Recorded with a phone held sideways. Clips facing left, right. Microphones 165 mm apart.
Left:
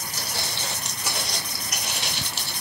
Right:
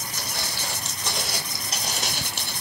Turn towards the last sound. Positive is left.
turn(degrees=-60)  # may be behind; listen again after turning